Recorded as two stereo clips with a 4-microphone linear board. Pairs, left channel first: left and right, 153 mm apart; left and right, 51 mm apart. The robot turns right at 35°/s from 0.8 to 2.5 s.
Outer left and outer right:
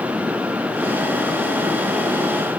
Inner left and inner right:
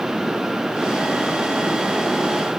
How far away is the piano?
I don't hear a piano.